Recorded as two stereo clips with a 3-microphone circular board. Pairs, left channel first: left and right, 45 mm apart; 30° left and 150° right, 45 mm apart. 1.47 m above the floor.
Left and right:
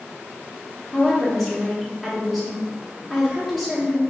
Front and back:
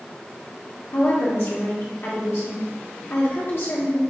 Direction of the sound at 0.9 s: Straight ahead.